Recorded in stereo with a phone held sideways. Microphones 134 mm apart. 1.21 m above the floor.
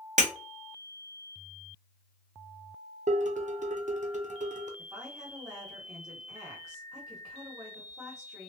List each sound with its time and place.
0.2 s breaking glass: 65° right (ahead or behind), 0.7 m
3.1 s dishes clattering: 65° right (ahead or behind), 0.5 m
4.8 s a woman speaking: 20° right (ahead or behind), 1.0 m